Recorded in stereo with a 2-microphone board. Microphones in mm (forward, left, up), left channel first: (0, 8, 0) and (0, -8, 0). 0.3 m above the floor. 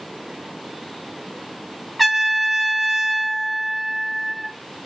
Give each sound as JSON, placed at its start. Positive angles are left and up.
{"t": 2.0, "sound": "a trumpet", "side_deg": 0, "distance_m": 1.0}